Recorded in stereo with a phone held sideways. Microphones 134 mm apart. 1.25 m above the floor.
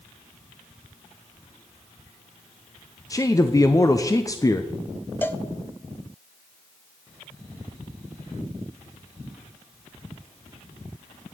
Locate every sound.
3.1 s a man speaking: 25° left (ahead or behind), 0.5 m
5.2 s a cowbell: 15° left (ahead or behind), 0.5 m